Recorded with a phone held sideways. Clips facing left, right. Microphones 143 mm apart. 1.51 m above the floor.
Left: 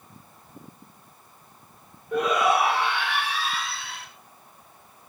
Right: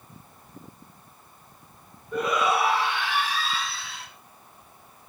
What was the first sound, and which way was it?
A shout, 75° left (ahead or behind).